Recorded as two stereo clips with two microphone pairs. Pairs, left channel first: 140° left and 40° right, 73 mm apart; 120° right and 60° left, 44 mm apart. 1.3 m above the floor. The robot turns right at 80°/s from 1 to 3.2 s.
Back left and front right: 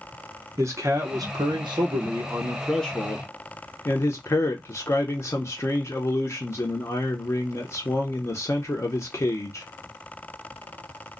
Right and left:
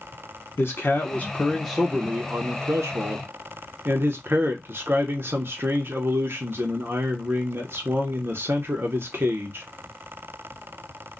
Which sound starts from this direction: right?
A man speaking, at 0.6 s.